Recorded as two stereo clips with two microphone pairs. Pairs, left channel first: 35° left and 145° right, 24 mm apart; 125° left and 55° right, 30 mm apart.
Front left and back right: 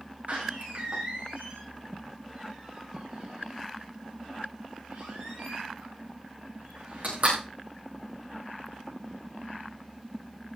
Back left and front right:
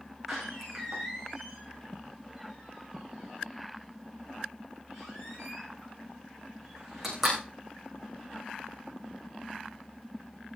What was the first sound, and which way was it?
A door slam, 135° right.